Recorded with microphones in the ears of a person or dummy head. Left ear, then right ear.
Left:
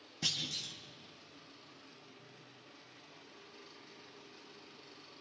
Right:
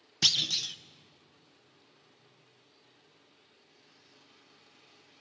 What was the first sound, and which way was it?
A clunk, 60° right (ahead or behind).